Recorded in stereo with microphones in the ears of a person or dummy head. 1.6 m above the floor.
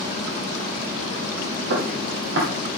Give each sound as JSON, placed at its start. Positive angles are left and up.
{"t": 1.7, "sound": "footsteps", "side_deg": -60, "distance_m": 3.0}